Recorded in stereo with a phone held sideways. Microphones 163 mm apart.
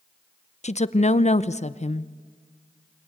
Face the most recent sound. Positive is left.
turn(degrees=40)  # may be behind; listen again after turning